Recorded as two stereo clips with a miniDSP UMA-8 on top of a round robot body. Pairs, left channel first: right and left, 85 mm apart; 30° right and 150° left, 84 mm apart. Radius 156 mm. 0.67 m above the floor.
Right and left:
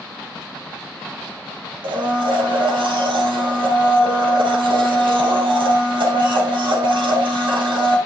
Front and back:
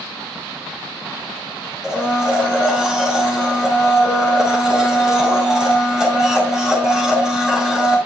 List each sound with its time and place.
1.8 s a blender: 65° left, 2 m